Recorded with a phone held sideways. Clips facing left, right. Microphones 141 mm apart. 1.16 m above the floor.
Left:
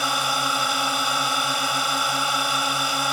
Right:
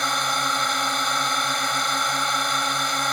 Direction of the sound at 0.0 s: 5° left (ahead or behind).